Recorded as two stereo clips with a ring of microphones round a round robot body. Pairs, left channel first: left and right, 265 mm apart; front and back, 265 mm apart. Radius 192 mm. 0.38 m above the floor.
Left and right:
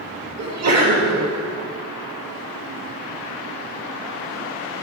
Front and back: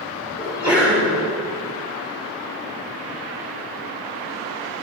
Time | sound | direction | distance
0.4 | a sneeze | 105° right | 3.5 m